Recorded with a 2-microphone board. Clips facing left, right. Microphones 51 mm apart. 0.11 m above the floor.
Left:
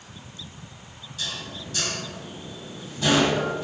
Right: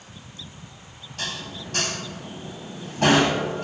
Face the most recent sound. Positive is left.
turn(degrees=-55)  # may be behind; listen again after turning